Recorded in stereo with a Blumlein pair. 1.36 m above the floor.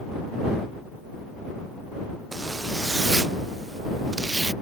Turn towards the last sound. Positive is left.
turn(degrees=-10)